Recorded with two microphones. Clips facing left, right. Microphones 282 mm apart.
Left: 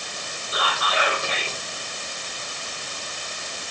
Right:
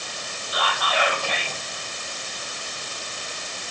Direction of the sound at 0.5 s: 25° left (ahead or behind).